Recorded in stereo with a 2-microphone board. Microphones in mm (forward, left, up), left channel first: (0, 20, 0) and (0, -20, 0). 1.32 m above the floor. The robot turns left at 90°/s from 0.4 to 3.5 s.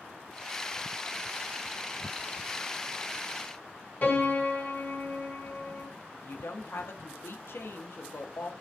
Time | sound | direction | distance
4.0 | a piano | 45° left (ahead or behind) | 1.3 m
6.1 | a woman speaking | 70° left (ahead or behind) | 0.5 m